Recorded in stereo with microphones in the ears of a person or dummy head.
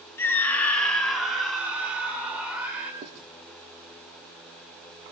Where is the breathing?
No breathing in this recording.